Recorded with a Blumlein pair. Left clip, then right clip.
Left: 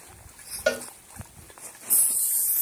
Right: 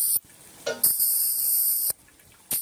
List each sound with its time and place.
0.7 s a cowbell: 50° left, 1.7 m